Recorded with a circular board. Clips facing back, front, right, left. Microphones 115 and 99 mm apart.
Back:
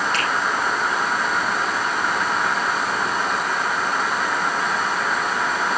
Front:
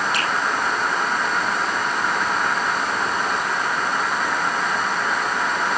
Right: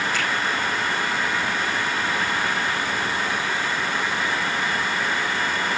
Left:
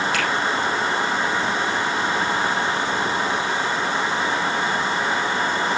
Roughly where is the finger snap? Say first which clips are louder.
Even, left 3 dB; left.